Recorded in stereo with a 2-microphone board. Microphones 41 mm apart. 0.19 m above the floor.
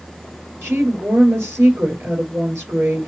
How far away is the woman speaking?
About 4 m.